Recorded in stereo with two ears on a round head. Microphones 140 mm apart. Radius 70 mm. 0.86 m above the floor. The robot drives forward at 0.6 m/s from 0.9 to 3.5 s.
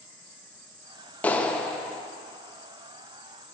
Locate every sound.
1.2 s a clap: 10° left (ahead or behind), 0.6 m; by 2.0 s 5° left (ahead or behind), 1.0 m